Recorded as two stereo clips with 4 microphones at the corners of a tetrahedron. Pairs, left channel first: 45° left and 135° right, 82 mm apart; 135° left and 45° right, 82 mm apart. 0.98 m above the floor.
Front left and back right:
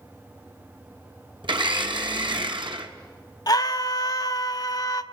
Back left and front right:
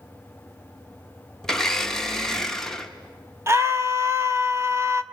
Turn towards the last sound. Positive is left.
turn(degrees=10)